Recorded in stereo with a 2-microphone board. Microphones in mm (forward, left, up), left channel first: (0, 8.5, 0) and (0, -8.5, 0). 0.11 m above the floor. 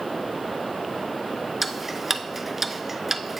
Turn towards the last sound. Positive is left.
turn(degrees=-15)  # may be behind; listen again after turning